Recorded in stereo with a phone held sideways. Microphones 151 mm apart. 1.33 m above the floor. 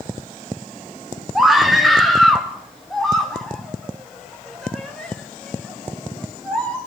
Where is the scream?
5° right (ahead or behind), 3 m; by 6.8 s 5° left (ahead or behind), 8.5 m.